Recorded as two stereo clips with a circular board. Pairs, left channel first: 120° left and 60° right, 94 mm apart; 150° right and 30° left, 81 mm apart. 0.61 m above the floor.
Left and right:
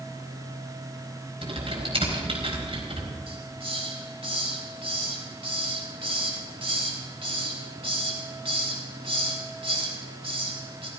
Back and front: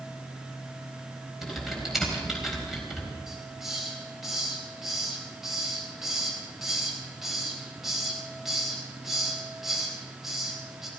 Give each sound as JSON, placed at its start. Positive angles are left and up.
{"t": 1.4, "sound": "typing on a keyboard", "azimuth_deg": -60, "distance_m": 4.5}
{"t": 3.3, "sound": "a hiss", "azimuth_deg": -55, "distance_m": 4.0}